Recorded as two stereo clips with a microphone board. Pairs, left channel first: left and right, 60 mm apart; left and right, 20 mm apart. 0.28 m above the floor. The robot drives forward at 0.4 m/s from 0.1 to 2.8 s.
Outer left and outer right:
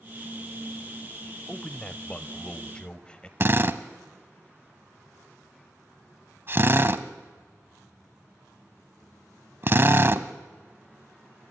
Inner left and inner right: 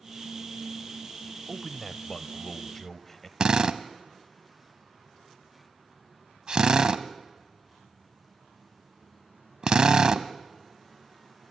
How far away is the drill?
About 0.8 m.